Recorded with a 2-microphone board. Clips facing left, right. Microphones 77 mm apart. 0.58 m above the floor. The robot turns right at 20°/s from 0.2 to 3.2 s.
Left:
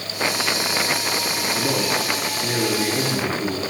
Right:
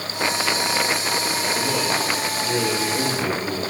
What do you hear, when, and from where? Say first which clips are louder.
1.5 s a man speaking: left 2 dB; 105° left, 10 m; by 3.6 s 140° left, 10 m